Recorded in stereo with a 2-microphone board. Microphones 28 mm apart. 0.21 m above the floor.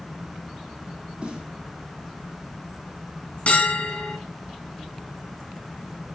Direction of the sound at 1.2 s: 40° right (ahead or behind).